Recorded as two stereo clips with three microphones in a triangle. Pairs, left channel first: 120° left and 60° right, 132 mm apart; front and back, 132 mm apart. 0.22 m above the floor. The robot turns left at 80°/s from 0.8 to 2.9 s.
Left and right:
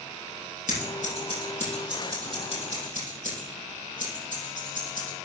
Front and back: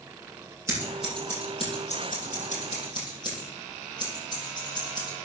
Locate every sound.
0.7 s scissors: 110° left, 6.5 m; by 5.1 s 55° right, 6.5 m